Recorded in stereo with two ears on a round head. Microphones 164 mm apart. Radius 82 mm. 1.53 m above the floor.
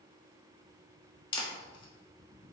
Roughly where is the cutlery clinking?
I don't hear cutlery clinking.